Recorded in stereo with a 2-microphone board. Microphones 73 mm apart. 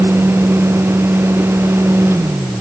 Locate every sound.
Only background noise.